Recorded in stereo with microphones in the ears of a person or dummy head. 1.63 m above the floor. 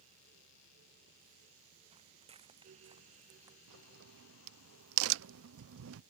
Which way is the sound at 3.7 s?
75° right (ahead or behind).